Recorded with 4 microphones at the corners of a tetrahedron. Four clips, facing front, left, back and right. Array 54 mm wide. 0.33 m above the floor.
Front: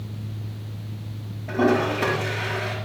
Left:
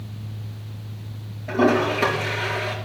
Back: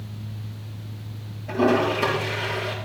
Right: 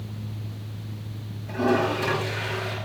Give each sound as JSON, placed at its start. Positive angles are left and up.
{"t": 1.5, "sound": "a toilet flushing", "azimuth_deg": 70, "distance_m": 5.0}